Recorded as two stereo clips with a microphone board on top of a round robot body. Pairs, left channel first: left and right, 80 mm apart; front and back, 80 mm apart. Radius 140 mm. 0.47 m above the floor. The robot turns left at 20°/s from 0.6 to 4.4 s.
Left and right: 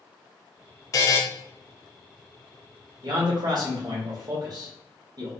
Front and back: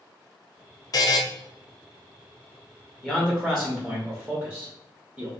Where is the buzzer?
40° left, 0.6 m; by 1.2 s 35° left, 0.6 m.